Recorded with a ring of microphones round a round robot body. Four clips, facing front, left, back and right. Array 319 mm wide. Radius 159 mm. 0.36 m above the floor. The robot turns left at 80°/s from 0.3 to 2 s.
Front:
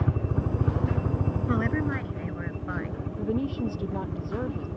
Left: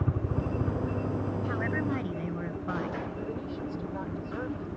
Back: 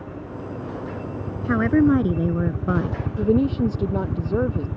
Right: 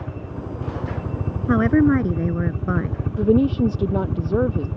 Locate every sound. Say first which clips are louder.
0.0 s a helicopter: left 1 dB, front 4 dB; 20° left; by 4.8 s 115° right
1.5 s a woman speaking: right 18 dB, back 13 dB; 100° right; by 3.0 s 140° right
3.2 s a woman speaking: right 18 dB, back 9 dB; 115° right